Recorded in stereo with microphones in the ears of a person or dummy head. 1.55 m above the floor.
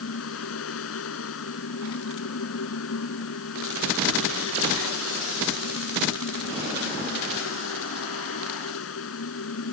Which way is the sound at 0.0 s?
90° left.